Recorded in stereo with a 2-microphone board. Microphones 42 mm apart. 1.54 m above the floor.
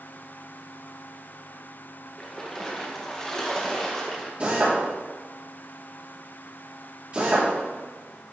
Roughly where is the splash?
Centre.